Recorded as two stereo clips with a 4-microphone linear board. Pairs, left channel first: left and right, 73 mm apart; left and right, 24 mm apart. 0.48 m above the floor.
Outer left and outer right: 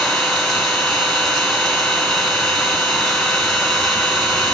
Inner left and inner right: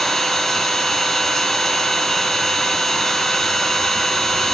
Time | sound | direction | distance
0.0 | an engine running | 5° left (ahead or behind) | 2 m